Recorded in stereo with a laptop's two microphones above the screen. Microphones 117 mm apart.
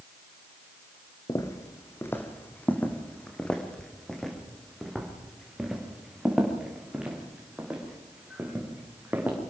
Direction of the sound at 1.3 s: 30° left (ahead or behind).